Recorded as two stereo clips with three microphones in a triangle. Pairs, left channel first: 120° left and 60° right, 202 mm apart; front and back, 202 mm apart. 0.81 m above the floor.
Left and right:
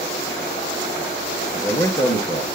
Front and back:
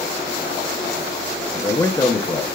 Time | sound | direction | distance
1.5 | a man speaking | 60° left | 0.7 m